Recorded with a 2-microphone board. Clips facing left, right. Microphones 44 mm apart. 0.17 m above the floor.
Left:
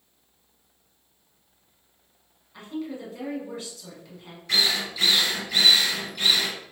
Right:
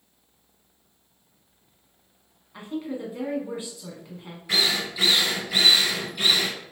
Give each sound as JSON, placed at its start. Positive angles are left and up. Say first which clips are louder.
{"t": 2.5, "sound": "a woman speaking", "louder": "right 2 dB", "side_deg": -20, "distance_m": 1.6}
{"t": 4.5, "sound": "a drill", "louder": "even", "side_deg": -15, "distance_m": 1.7}